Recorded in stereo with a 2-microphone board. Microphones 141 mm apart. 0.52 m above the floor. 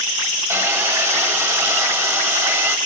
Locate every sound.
0.5 s sawing: 20° right (ahead or behind), 1.1 m